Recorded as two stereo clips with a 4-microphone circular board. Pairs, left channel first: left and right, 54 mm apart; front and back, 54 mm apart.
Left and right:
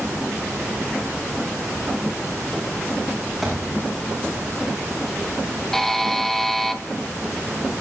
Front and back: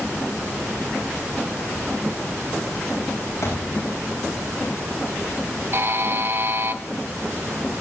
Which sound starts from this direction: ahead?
A thud, at 3.4 s.